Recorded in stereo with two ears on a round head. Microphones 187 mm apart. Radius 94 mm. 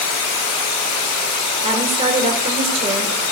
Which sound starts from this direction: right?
A woman speaking, at 1.6 s.